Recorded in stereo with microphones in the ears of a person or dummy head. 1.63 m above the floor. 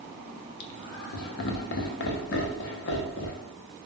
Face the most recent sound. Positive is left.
turn(degrees=60)  # may be behind; listen again after turning